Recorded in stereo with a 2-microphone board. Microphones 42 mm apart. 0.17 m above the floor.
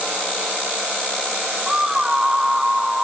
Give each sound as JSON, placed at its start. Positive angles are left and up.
{"t": 1.7, "sound": "a scream", "side_deg": -15}